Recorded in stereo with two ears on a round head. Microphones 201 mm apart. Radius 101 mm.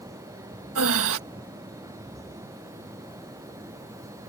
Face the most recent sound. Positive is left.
turn(degrees=-70)  # may be behind; listen again after turning